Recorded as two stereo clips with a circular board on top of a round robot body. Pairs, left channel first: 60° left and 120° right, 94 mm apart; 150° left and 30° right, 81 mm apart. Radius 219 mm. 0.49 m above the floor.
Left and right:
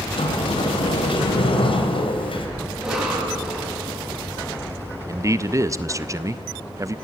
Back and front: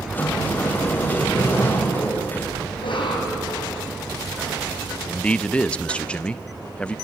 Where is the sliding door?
80° left, 3 m.